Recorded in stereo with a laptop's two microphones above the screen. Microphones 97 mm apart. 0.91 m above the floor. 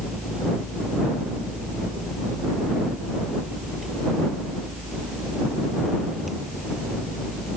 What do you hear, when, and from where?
0.0 s a fan: centre (ahead or behind)